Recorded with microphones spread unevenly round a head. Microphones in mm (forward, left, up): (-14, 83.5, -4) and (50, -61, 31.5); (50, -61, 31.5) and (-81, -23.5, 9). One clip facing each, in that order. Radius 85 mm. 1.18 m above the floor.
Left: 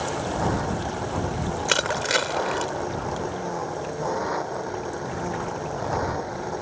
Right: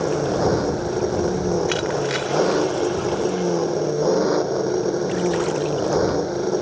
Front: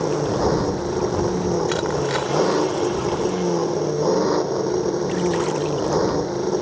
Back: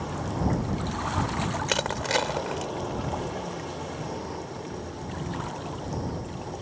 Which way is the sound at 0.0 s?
25° right.